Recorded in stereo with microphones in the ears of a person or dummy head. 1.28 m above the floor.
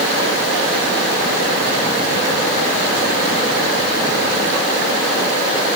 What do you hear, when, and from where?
Only background noise.